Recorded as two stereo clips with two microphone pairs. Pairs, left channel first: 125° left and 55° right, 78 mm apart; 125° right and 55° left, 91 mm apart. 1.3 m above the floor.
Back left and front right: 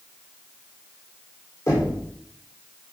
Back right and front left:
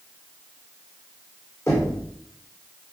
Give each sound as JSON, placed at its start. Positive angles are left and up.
{"t": 1.7, "sound": "knocking", "azimuth_deg": 175, "distance_m": 4.0}